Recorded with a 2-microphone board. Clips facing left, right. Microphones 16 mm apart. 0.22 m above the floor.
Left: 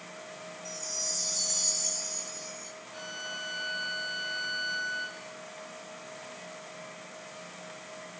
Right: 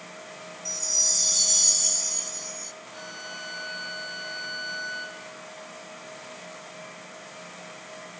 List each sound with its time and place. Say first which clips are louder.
0.7 s a chime: right 10 dB; 45° right (ahead or behind), 1.6 m
2.9 s a violin: left 1 dB; 5° right (ahead or behind), 2.5 m